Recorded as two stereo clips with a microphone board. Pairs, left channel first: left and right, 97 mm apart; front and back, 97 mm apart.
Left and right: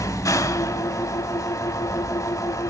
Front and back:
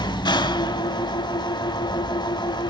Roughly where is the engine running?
Ahead left.